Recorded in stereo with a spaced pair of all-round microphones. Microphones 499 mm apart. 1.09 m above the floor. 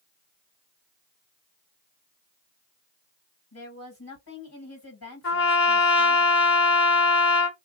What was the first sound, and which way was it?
A woman speaking, 45° left (ahead or behind).